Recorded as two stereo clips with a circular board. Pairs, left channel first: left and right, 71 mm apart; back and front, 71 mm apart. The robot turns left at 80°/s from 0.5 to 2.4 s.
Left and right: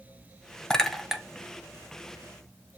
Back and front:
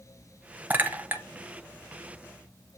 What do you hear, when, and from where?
0.7 s a clink: 25° left, 0.6 m; by 1.2 s 20° right, 0.6 m